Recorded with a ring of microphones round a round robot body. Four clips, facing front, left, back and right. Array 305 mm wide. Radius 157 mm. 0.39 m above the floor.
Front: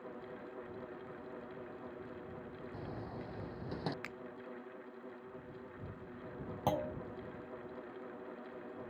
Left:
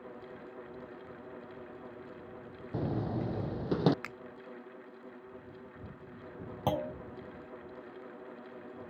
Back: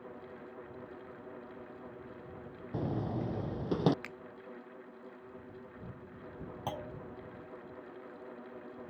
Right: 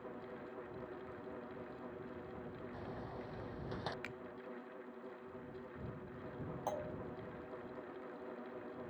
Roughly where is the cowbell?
No cowbell in this recording.